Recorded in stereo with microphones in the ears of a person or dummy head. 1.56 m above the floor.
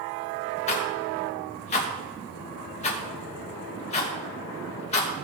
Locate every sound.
0.7 s a rattle: 35° left (ahead or behind), 2.0 m